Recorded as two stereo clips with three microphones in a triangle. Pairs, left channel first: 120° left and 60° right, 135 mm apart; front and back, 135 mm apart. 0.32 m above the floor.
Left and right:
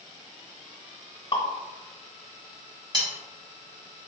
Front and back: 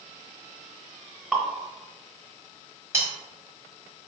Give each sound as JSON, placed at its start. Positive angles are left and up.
{"t": 1.3, "sound": "dripping", "azimuth_deg": 95, "distance_m": 0.7}
{"t": 2.9, "sound": "cutlery clinking", "azimuth_deg": -110, "distance_m": 1.1}